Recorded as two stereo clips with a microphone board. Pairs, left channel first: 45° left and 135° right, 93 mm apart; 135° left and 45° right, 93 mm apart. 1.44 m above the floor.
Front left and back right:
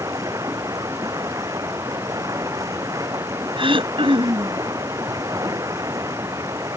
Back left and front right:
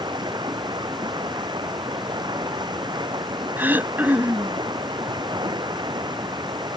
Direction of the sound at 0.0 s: 85° right.